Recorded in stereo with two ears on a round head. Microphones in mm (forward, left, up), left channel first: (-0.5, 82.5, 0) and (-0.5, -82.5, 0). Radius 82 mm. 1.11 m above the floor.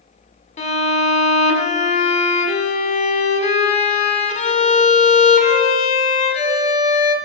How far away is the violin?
About 1.6 m.